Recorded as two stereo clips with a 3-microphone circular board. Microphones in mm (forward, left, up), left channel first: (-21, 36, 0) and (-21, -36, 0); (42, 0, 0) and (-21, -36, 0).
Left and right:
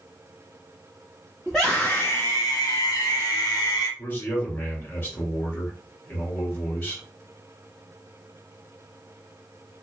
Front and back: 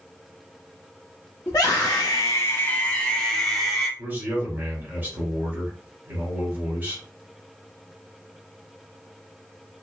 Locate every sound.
1.5 s a scream: straight ahead, 0.8 m; by 3.9 s 115° left, 1.6 m
4.0 s a man speaking: 145° left, 2.5 m